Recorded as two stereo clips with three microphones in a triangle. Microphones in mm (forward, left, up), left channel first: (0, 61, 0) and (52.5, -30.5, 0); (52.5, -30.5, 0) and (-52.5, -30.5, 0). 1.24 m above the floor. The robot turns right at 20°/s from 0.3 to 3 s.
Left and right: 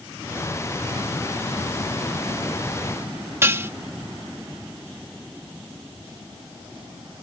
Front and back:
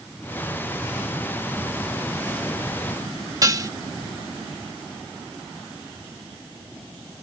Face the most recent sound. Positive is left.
turn(degrees=-125)